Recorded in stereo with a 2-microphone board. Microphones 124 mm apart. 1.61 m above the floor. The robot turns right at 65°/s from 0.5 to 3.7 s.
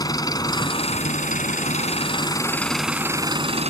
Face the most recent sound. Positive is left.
turn(degrees=-120)